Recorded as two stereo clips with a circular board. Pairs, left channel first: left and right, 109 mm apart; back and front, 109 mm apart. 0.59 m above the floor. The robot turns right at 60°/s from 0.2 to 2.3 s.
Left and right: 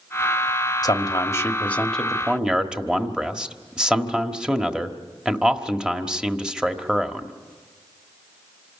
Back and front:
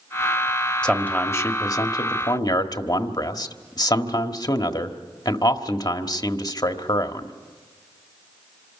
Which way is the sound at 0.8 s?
105° left.